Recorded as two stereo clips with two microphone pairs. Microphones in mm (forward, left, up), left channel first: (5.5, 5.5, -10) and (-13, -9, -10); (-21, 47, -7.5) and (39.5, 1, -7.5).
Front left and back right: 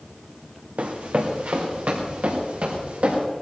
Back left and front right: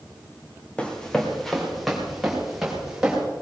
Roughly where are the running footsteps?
Behind right.